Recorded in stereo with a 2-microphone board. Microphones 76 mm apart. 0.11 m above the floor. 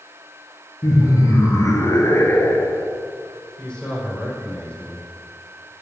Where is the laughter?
50° left (ahead or behind), 2.5 m; by 2.9 s 25° left (ahead or behind), 1.9 m.